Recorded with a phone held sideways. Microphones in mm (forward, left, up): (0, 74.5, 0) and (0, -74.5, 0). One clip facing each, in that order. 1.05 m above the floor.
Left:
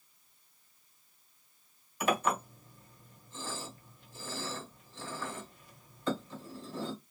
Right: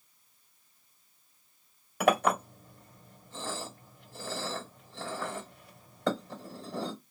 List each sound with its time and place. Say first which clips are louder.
2.0 s a clink: right 5 dB; 75° right (ahead or behind), 1.4 m